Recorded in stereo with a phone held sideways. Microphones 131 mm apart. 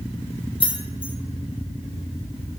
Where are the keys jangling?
45° left (ahead or behind), 0.5 m.